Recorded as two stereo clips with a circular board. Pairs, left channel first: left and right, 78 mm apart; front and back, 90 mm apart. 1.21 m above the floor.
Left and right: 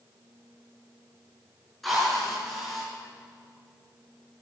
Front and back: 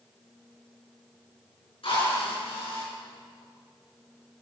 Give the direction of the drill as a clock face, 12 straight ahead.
12 o'clock.